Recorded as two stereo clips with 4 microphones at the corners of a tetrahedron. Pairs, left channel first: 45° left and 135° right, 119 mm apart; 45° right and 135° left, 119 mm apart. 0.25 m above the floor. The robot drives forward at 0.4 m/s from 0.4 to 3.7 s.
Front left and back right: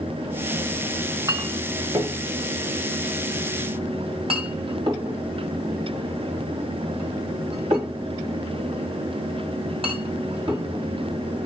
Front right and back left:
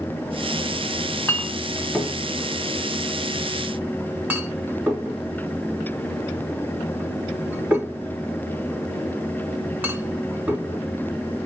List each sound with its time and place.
1.0 s a clink: 90° right, 1.1 m; by 11.5 s 155° right, 1.5 m